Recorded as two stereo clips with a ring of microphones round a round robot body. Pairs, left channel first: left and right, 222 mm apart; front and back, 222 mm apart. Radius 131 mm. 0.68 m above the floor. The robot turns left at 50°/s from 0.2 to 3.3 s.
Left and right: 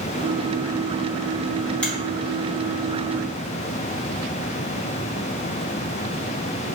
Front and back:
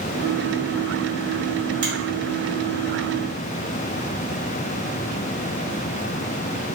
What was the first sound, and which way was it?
A finger snap, 175° left.